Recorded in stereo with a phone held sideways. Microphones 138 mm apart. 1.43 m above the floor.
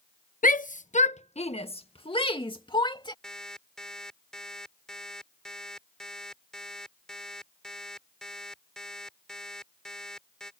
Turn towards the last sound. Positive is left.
turn(degrees=5)  # may be behind; listen again after turning